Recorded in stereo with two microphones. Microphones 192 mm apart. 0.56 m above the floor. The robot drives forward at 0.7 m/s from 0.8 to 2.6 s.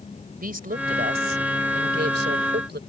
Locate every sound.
0.4 s a woman speaking: 50° right (ahead or behind); by 2.8 s 65° right (ahead or behind)